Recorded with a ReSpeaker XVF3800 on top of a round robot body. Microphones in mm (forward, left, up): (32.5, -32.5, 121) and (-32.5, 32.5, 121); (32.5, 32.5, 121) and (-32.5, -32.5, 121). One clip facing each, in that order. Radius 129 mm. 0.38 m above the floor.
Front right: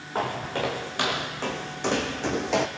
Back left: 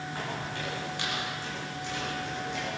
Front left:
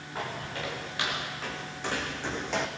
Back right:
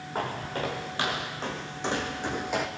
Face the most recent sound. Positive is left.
turn(degrees=-50)